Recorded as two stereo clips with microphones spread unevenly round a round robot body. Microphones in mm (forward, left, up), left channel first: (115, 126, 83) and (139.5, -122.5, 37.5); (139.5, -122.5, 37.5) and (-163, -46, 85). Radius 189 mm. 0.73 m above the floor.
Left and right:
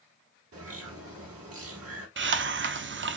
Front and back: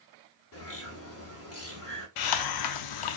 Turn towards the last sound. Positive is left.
turn(degrees=-30)